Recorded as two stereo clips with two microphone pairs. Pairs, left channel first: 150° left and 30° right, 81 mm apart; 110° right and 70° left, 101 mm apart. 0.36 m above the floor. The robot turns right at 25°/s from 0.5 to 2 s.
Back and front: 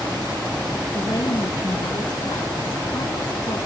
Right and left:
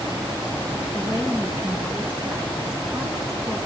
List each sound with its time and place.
0.9 s a woman speaking: 120° left, 4.5 m; by 3.6 s 150° left, 4.5 m